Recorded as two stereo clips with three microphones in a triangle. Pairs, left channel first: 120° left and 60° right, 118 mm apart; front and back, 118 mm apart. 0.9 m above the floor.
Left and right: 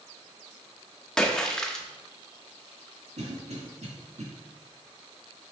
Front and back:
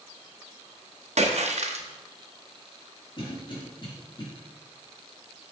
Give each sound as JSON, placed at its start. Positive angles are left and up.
{"t": 1.2, "sound": "a splash", "azimuth_deg": -155, "distance_m": 0.7}
{"t": 3.2, "sound": "a cough", "azimuth_deg": -45, "distance_m": 2.0}